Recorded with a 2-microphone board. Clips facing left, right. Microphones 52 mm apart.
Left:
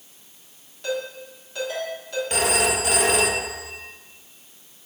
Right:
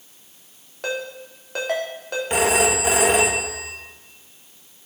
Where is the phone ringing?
25° right (ahead or behind), 0.8 m.